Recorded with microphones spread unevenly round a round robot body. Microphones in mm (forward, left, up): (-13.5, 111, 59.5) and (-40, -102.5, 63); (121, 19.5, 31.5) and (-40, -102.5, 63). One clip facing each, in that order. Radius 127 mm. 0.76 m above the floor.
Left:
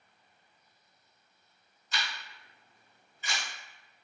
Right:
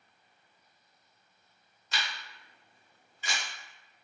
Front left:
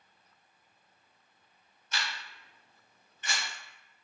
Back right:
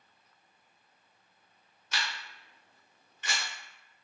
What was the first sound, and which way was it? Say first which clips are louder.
A camera shutter: even, back right 1 dB; 125° right.